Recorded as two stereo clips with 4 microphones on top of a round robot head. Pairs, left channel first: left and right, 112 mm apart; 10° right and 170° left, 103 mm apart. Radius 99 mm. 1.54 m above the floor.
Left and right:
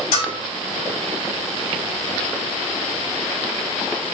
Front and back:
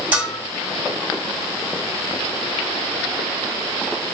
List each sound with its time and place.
0.1 s a bell: 95° left, 2.5 m